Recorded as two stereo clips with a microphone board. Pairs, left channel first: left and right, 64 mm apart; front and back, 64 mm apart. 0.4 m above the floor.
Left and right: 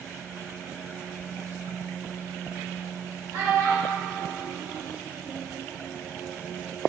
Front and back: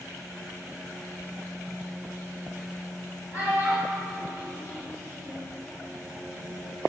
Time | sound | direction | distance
3.3 | a child speaking | 130° right | 1.4 m